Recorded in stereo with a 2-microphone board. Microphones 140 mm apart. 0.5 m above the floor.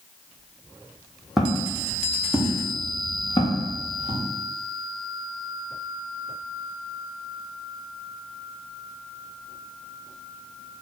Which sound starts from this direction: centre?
Footsteps, at 1.4 s.